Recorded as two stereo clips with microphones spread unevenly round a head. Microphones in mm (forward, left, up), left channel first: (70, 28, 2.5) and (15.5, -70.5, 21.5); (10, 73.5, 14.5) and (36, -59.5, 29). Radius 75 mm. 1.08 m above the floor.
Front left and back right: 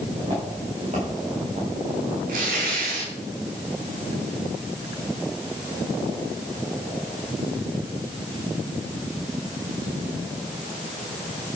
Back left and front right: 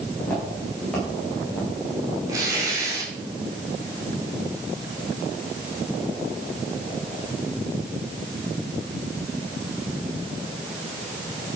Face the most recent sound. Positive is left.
turn(degrees=-145)